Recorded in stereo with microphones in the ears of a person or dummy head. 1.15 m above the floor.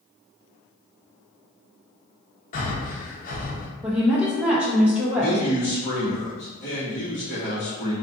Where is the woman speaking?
5° right (ahead or behind), 0.7 m.